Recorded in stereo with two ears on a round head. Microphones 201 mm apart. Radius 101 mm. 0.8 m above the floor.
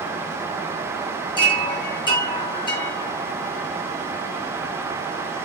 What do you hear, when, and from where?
1.4 s a chime: 20° left (ahead or behind), 9.5 m